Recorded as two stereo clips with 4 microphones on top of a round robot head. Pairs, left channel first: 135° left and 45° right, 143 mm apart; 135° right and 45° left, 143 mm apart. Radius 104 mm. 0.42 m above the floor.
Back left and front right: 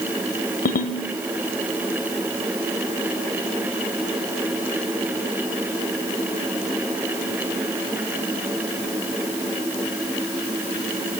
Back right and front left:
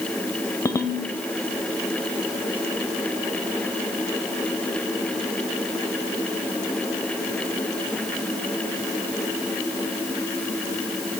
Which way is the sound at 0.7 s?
155° left.